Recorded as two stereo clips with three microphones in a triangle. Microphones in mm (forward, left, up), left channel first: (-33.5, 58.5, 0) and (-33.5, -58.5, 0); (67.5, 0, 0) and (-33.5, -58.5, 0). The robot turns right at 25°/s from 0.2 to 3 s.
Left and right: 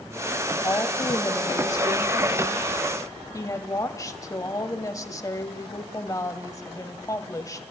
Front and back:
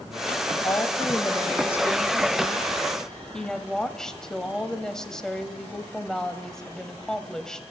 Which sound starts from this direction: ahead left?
A woman speaking, at 0.6 s.